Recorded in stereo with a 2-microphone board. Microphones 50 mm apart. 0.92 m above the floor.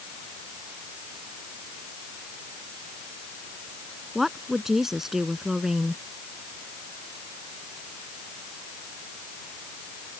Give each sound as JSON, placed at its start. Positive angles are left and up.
{"t": 4.2, "sound": "a woman speaking", "side_deg": -5}